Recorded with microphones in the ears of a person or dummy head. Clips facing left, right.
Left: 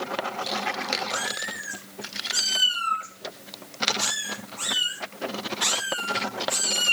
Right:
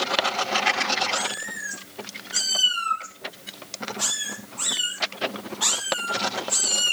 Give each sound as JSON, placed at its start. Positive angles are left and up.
{"t": 1.1, "sound": "a cat meowing", "side_deg": 20, "distance_m": 7.0}